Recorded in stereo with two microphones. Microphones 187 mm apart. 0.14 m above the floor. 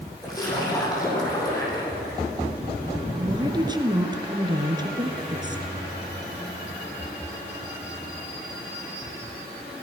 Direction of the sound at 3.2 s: 25° right (ahead or behind).